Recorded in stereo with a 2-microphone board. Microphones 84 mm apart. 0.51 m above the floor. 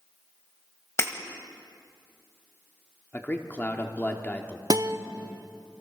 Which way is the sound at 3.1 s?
20° left (ahead or behind).